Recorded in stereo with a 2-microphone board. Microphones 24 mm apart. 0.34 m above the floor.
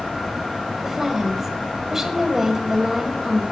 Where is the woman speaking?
15° right (ahead or behind), 1.5 m.